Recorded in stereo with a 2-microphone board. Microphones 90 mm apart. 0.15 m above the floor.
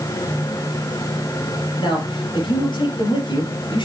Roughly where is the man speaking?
Left.